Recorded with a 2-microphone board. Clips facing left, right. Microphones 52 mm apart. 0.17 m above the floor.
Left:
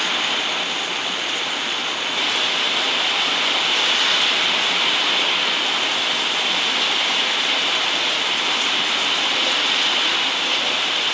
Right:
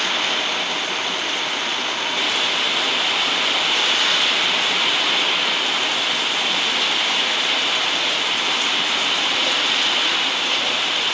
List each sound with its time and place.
0.0 s running water: 5° left (ahead or behind)